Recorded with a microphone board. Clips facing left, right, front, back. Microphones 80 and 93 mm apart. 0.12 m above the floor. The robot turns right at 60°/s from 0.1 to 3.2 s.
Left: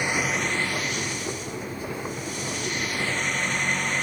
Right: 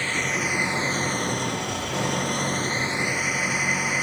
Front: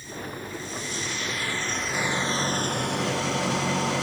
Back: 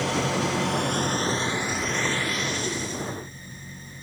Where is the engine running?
165° left; by 4.0 s 10° right.